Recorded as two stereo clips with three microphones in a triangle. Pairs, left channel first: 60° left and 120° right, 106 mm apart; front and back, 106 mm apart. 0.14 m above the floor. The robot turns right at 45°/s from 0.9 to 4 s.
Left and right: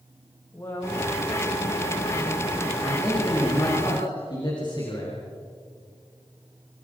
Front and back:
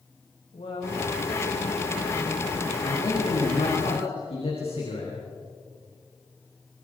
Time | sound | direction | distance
0.5 | a woman speaking | 5° right | 10 m
2.8 | a man speaking | 35° right | 8 m